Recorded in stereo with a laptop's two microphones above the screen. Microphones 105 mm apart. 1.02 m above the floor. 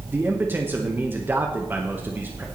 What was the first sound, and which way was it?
A man speaking, 20° right (ahead or behind).